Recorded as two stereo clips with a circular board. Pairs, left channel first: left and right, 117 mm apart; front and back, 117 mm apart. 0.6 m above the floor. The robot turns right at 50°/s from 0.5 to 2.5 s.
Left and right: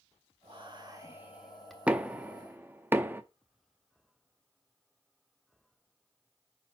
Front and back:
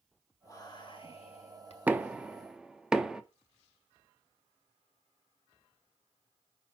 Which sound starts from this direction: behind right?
Knocking, at 1.9 s.